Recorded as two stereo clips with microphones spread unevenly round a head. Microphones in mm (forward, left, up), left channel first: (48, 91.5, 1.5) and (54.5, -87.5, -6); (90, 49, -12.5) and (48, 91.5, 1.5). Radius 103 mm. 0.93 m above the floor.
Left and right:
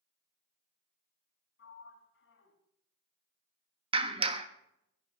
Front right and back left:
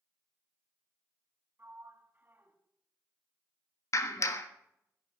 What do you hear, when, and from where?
1.6 s a sliding door: 85° left, 3 m
3.9 s a clap: 30° right, 1.4 m